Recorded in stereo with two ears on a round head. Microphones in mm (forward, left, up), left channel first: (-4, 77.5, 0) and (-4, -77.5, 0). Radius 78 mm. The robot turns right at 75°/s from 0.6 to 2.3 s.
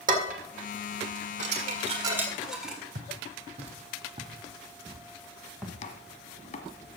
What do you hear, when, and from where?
0.1 s dishes clattering: 50° right (ahead or behind), 1.9 m; by 2.8 s 5° right (ahead or behind), 1.9 m
3.0 s footsteps: 50° right (ahead or behind), 2 m; by 5.7 s 5° right (ahead or behind), 2.5 m
5.8 s chopping: 40° left (ahead or behind), 1.1 m